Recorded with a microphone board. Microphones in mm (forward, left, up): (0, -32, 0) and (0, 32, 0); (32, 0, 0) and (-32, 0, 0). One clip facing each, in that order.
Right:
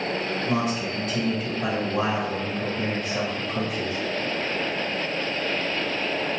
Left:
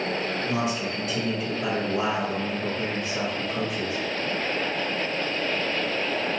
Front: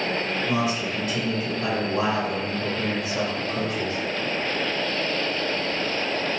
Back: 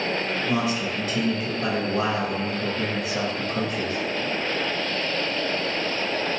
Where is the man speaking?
85° right, 1.5 m.